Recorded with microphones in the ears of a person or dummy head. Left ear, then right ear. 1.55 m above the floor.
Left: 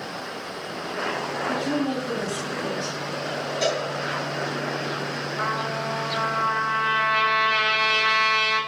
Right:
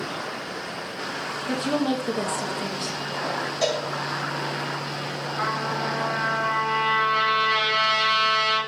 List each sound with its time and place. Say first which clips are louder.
1.5 s a woman speaking: right 3 dB; 45° right (ahead or behind), 0.5 m
3.6 s a cowbell: left 1 dB; 5° right (ahead or behind), 1.2 m
5.4 s a trumpet: right 1 dB; 20° right (ahead or behind), 1.5 m